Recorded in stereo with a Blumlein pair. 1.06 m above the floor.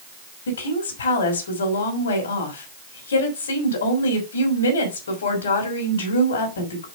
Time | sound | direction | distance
0.5 | a woman speaking | 65° left | 3.5 m